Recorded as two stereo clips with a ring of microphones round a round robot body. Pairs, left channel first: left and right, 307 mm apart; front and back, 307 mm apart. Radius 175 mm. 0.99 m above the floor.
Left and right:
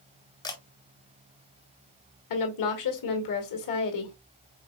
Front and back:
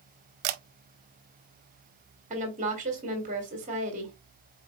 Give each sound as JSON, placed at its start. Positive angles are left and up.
{"t": 0.4, "sound": "a camera shutter", "azimuth_deg": 170, "distance_m": 0.6}
{"t": 2.3, "sound": "a woman speaking", "azimuth_deg": 110, "distance_m": 2.0}